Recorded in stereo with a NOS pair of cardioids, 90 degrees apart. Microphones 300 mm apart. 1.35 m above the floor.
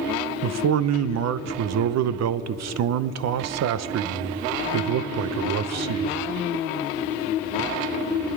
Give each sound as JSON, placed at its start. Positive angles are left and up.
{"t": 0.4, "sound": "a man speaking", "azimuth_deg": -60, "distance_m": 0.8}